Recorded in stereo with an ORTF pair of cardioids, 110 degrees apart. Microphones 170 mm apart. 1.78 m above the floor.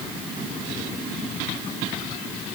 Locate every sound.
Only background noise.